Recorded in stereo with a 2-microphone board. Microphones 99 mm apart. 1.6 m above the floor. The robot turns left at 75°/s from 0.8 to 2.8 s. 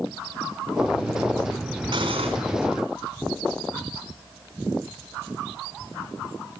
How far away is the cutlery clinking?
About 4 m.